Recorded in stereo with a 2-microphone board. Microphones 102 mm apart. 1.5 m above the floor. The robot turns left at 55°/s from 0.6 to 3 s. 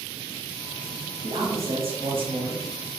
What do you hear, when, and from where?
1.2 s a man speaking: 70° right, 0.8 m; by 2.6 s 145° right, 0.8 m